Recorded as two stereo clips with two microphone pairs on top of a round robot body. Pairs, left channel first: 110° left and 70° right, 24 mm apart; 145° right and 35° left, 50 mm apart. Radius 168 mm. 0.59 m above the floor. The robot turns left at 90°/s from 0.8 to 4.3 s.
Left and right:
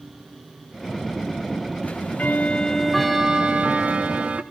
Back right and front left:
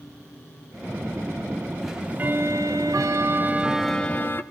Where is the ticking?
125° left, 1.0 m; by 4.4 s 100° right, 1.0 m.